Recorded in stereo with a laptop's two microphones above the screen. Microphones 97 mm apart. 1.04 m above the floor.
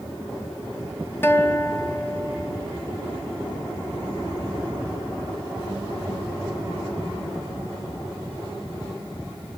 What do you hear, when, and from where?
1.2 s a guitar: 20° left (ahead or behind), 0.5 m